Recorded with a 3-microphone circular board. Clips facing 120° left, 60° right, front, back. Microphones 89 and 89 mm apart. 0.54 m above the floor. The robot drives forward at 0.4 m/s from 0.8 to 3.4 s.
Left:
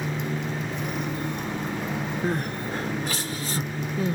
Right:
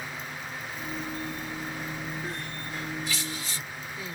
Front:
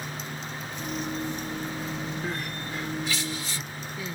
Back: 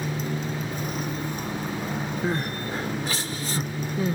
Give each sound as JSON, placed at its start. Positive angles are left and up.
{"t": 0.0, "sound": "a motorcycle", "azimuth_deg": 140}
{"t": 2.2, "sound": "crying", "azimuth_deg": 130}